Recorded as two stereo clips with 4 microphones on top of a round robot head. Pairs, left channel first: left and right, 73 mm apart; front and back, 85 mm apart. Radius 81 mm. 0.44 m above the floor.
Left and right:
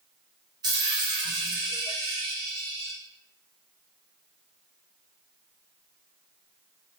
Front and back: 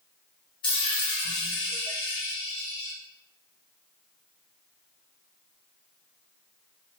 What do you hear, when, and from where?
0.6 s a dropped coin: 45° right, 0.6 m